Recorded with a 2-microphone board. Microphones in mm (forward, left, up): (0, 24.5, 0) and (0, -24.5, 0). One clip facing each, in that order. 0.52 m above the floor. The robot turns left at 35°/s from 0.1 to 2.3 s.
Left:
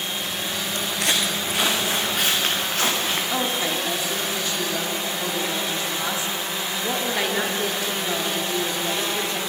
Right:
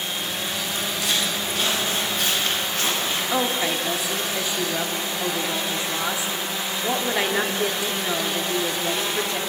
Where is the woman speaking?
15° right (ahead or behind), 0.9 m.